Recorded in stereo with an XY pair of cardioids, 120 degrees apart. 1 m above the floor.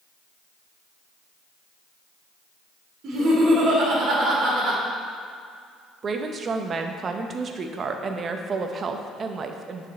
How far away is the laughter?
About 2.0 m.